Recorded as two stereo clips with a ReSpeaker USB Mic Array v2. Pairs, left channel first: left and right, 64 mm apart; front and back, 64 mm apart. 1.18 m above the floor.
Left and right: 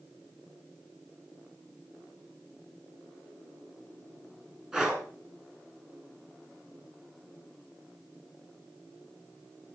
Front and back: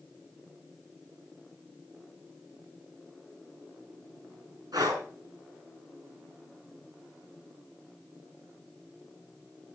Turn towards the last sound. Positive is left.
turn(degrees=-165)